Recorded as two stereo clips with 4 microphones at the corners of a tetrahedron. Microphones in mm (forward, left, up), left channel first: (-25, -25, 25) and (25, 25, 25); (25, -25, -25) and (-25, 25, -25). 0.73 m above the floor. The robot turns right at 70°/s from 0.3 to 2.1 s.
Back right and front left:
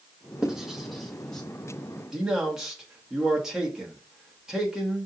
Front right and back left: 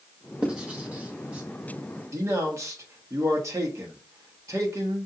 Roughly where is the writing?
Left.